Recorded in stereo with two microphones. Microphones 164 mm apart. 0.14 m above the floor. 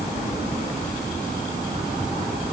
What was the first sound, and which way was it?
Only background noise.